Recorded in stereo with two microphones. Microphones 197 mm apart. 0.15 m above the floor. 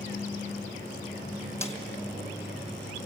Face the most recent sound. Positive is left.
turn(degrees=15)  # may be behind; listen again after turning